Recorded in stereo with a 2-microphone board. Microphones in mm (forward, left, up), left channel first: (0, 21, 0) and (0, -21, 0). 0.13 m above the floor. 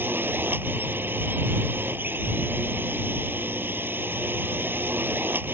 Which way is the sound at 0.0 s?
55° right (ahead or behind).